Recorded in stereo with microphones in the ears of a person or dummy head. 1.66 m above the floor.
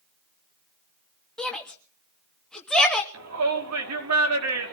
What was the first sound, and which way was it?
A shout, centre (ahead or behind).